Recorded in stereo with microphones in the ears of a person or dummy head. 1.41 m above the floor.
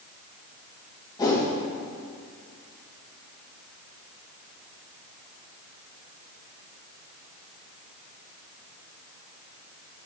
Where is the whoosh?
20° left (ahead or behind), 1.6 m.